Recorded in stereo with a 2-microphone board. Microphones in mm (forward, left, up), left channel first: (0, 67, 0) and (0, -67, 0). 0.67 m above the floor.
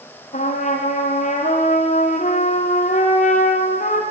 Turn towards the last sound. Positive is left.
turn(degrees=70)  # may be behind; listen again after turning